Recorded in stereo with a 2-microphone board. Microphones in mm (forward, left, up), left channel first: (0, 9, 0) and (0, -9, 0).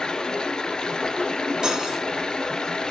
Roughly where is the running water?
Left.